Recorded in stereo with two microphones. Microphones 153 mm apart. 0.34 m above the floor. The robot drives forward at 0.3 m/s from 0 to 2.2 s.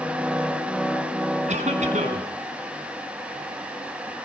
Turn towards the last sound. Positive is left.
turn(degrees=-55)  # may be behind; listen again after turning